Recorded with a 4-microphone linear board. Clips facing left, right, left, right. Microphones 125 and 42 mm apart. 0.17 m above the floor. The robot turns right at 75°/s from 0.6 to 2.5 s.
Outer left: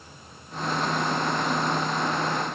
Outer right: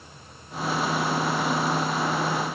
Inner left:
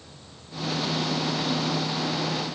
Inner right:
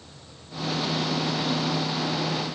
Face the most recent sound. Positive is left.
No sound to turn to.